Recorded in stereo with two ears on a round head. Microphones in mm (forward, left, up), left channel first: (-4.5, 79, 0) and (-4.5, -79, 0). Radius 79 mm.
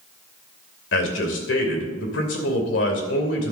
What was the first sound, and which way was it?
A man speaking, 70° left (ahead or behind).